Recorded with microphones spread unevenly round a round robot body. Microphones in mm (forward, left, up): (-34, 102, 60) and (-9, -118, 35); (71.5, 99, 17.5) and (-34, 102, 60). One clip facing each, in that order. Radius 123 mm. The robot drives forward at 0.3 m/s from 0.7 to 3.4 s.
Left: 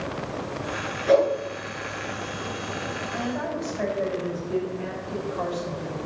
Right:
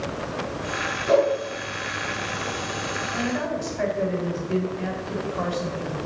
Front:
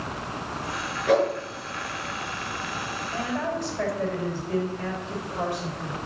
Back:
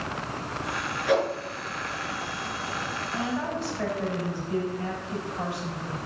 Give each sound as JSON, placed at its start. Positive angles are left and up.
{"t": 1.1, "sound": "a whoosh", "azimuth_deg": 35, "distance_m": 6.0}
{"t": 3.1, "sound": "a woman speaking", "azimuth_deg": -30, "distance_m": 4.0}